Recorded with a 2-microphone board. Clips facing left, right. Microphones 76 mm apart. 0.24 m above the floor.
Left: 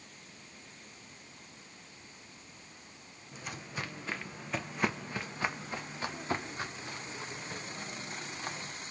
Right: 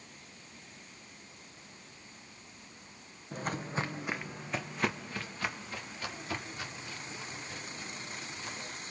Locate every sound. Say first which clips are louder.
3.3 s footsteps: right 7 dB; 50° right (ahead or behind), 1.1 m; by 8.7 s 45° left (ahead or behind), 4 m